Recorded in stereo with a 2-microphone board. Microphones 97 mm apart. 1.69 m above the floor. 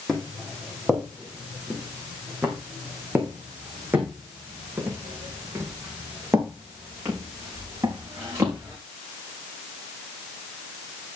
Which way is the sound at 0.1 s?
Centre (ahead or behind).